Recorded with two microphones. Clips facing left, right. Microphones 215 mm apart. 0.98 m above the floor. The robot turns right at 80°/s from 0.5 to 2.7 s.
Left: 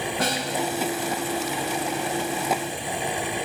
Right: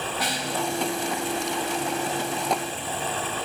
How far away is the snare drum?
About 1.6 m.